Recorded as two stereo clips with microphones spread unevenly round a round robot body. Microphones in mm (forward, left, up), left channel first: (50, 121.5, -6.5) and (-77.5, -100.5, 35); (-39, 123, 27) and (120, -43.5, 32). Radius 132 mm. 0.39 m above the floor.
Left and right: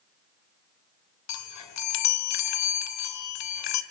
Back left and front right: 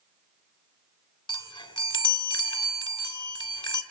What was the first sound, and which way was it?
A chime, 65° left.